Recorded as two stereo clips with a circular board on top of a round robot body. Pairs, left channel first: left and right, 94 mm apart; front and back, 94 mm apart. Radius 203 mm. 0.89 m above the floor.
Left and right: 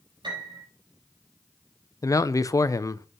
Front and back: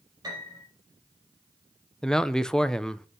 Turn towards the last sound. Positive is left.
turn(degrees=80)